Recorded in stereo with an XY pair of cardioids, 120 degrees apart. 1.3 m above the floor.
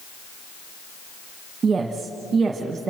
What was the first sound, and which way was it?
A woman speaking, 35° right.